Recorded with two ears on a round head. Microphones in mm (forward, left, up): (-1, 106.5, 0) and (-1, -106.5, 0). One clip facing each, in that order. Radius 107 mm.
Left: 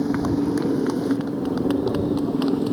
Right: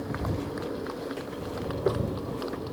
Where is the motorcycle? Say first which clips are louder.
Left 12 dB; 65° left (ahead or behind); by 2.7 s 70° left (ahead or behind).